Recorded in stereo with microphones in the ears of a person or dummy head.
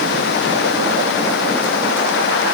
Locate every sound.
Only background noise.